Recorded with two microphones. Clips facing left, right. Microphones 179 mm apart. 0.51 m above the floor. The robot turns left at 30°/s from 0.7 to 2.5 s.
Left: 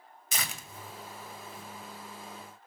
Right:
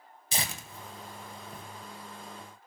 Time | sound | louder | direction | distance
0.3 | tearing paper | right 3 dB | 30° right (ahead or behind) | 1.6 m